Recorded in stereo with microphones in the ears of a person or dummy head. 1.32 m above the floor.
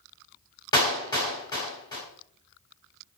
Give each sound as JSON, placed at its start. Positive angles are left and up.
{"t": 0.7, "sound": "a clap", "side_deg": 20, "distance_m": 0.8}